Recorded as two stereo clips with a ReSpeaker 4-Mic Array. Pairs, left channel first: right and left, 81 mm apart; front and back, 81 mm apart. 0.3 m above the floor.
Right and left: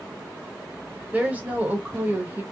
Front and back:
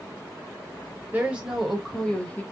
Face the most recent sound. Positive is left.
turn(degrees=50)